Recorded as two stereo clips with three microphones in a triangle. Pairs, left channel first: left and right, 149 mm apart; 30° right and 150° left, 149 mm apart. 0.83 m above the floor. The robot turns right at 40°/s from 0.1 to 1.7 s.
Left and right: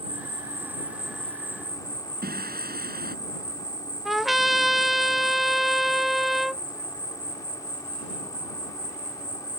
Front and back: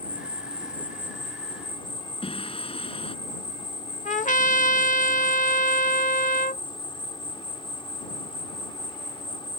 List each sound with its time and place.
0.0 s an insect: 40° right; by 9.6 s 25° left
2.2 s singing: 85° right
4.0 s a trumpet: straight ahead